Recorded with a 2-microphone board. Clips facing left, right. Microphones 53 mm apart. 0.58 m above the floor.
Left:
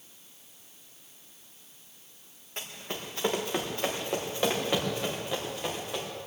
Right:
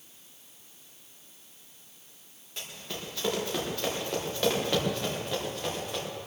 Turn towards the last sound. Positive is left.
turn(degrees=5)  # may be behind; listen again after turning